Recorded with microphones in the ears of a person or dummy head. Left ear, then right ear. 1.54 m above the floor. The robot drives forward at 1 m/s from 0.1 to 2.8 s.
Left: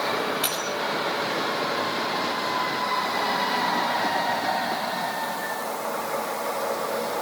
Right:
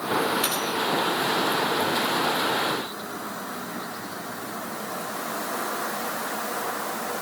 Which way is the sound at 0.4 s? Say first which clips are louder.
Right 1 dB; 10° left (ahead or behind).